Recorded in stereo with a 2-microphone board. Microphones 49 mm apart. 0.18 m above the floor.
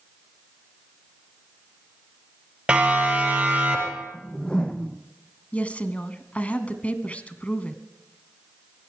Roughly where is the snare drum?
I don't hear a snare drum.